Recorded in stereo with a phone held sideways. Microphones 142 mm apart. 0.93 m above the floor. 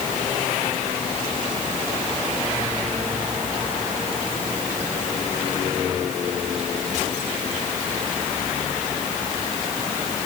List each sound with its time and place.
Only background noise.